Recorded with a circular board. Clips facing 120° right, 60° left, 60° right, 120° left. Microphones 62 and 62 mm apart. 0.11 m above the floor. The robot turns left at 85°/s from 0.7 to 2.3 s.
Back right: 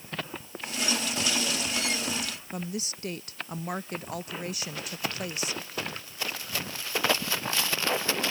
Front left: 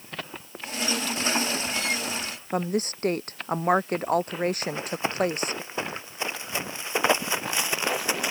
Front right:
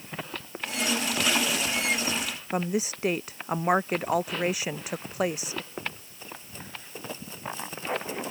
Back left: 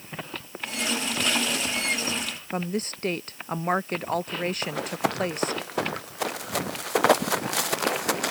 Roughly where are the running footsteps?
Behind left.